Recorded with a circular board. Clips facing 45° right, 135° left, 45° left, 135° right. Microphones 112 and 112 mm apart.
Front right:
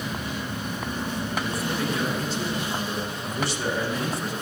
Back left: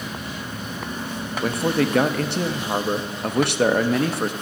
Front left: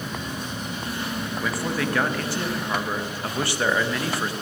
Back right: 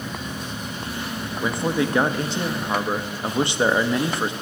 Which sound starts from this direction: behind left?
A man speaking, at 1.4 s.